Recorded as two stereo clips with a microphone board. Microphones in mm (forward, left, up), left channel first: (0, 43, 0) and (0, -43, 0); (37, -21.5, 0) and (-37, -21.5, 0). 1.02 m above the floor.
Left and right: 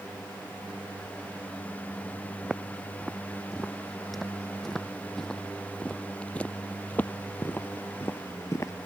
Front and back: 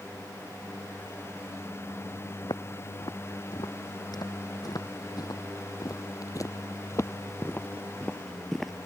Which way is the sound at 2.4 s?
5° right.